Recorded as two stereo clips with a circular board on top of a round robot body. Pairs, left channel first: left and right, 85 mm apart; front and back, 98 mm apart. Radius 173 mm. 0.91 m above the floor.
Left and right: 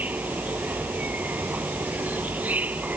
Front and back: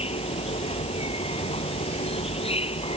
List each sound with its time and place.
0.0 s an insect: 20° right